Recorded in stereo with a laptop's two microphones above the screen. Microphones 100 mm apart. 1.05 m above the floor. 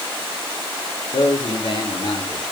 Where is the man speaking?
65° left (ahead or behind), 3.5 m.